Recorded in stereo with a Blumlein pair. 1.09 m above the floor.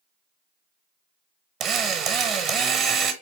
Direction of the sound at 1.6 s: 25° right.